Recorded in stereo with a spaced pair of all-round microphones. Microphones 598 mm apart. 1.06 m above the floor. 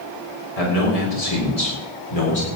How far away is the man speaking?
About 4.5 m.